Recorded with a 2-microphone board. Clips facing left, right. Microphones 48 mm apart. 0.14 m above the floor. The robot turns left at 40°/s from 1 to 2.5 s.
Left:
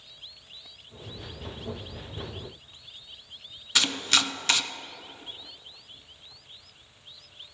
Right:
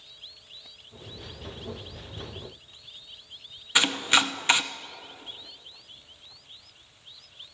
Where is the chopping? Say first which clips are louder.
Right 3 dB; 20° right (ahead or behind), 0.5 m.